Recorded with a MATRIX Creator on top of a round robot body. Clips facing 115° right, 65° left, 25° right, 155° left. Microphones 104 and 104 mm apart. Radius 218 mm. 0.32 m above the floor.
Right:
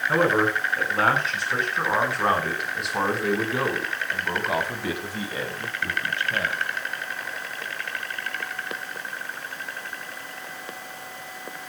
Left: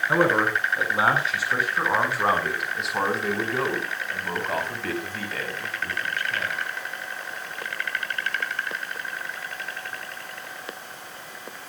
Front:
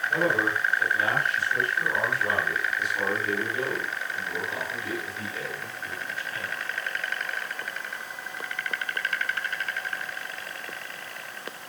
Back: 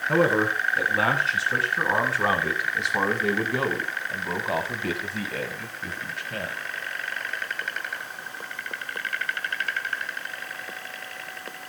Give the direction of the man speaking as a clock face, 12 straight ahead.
7 o'clock.